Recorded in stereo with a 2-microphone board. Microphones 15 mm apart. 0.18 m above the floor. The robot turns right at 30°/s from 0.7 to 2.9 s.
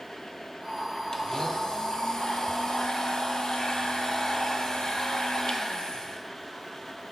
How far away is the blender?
About 1.1 m.